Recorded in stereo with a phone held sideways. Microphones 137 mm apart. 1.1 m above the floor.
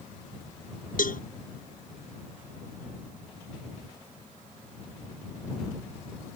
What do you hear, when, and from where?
1.0 s a cowbell: 85° left